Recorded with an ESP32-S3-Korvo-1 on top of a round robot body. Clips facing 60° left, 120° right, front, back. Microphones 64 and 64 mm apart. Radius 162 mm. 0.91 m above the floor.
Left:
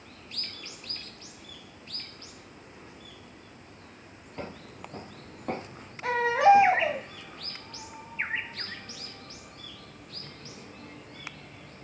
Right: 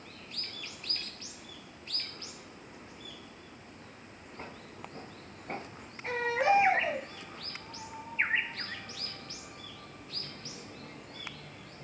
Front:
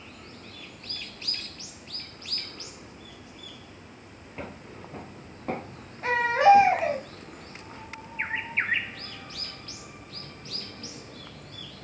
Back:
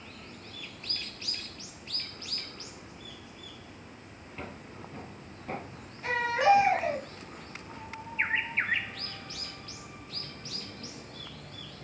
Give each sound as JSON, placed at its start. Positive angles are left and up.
{"t": 4.4, "sound": "footsteps", "azimuth_deg": 75, "distance_m": 1.6}
{"t": 6.0, "sound": "a baby crying", "azimuth_deg": 50, "distance_m": 3.0}